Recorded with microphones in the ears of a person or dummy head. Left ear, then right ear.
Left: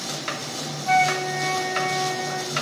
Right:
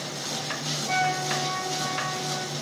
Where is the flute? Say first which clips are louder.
Left 6 dB; 70° left (ahead or behind), 5 m.